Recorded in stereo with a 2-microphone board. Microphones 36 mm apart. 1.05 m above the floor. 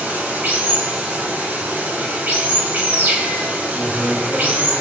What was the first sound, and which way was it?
Running water, 60° right (ahead or behind).